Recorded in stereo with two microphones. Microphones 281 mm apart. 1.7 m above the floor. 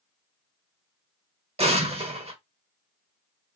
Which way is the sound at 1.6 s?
20° right (ahead or behind).